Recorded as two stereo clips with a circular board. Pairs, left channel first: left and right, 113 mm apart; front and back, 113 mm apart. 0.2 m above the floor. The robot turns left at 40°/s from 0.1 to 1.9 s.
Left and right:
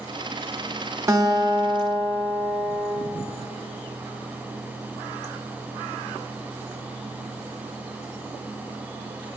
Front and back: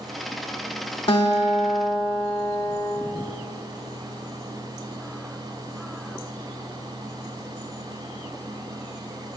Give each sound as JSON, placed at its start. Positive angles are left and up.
{"t": 1.1, "sound": "a guitar", "azimuth_deg": -30, "distance_m": 0.5}